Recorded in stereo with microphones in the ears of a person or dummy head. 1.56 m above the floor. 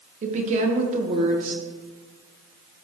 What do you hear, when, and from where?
0.2 s a woman speaking: 45° right (ahead or behind), 1.6 m